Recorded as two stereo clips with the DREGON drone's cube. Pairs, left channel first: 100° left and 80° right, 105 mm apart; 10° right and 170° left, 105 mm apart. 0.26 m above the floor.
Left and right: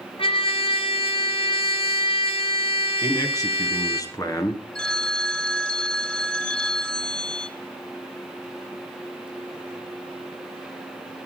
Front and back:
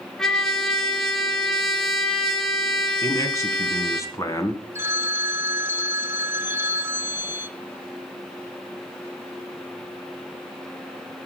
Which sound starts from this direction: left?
A trumpet, at 0.2 s.